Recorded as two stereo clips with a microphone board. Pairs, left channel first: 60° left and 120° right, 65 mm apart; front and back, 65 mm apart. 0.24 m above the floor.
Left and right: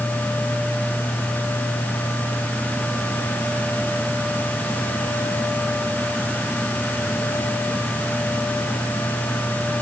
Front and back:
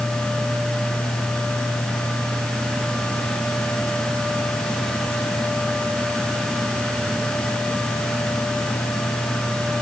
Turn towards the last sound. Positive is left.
No sound to turn to.